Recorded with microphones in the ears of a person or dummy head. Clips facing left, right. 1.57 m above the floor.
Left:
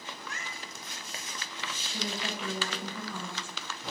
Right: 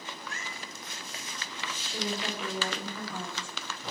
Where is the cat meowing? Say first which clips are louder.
Right 1 dB; 30° right (ahead or behind), 2.5 m.